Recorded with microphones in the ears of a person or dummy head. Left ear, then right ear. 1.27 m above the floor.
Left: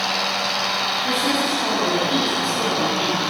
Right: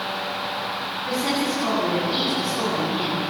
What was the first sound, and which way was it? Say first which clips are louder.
A woman speaking: left 4 dB; 55° left (ahead or behind).